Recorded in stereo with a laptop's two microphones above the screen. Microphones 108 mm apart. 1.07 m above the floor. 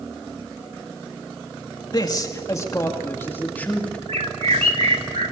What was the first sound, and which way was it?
A man speaking, 40° left (ahead or behind).